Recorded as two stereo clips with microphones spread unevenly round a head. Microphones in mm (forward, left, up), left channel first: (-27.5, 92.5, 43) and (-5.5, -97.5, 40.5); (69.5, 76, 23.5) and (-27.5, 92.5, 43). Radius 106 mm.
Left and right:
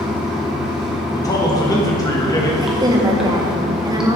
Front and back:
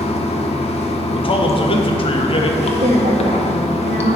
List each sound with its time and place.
0.0 s running water: 5° left, 0.7 m
1.1 s a man speaking: 25° left, 0.9 m
2.6 s a woman speaking: 155° right, 0.9 m